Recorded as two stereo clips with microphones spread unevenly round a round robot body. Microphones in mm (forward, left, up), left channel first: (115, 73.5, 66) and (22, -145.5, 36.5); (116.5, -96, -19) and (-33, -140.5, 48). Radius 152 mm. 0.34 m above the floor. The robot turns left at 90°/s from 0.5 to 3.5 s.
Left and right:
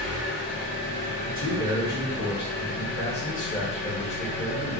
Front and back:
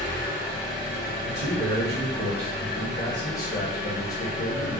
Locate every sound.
0.0 s an engine running: 30° right, 1.4 m; by 4.8 s 60° left, 1.4 m
1.2 s a man speaking: 155° right, 1.1 m; by 4.8 s 5° left, 1.1 m